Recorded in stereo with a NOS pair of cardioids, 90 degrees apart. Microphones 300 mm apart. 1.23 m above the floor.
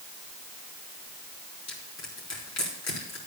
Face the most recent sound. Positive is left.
turn(degrees=60)